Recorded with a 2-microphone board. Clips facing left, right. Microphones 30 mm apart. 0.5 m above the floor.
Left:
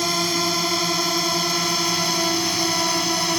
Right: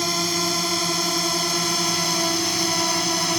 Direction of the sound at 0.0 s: 5° left (ahead or behind).